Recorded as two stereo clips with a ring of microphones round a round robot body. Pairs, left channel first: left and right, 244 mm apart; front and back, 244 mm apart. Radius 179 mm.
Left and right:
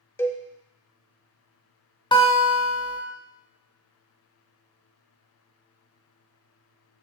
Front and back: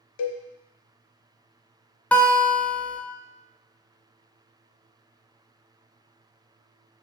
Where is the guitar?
75° left, 0.7 m.